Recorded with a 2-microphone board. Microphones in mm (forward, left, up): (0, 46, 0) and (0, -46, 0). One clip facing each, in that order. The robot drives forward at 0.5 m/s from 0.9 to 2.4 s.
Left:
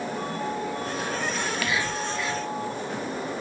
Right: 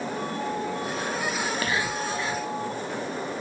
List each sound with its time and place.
1.4 s whispering: 35° right (ahead or behind), 1.4 m; by 2.5 s 25° right (ahead or behind), 1.7 m